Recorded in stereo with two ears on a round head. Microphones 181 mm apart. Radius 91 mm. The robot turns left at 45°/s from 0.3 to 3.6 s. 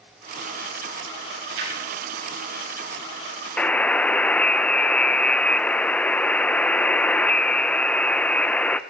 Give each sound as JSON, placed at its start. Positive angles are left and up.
{"t": 1.4, "sound": "a splash", "side_deg": -60, "distance_m": 8.5}
{"t": 3.6, "sound": "a buzzer", "side_deg": 5, "distance_m": 0.5}